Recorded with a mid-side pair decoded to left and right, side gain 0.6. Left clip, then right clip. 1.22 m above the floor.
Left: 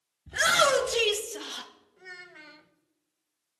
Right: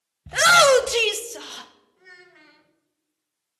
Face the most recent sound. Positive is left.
turn(degrees=25)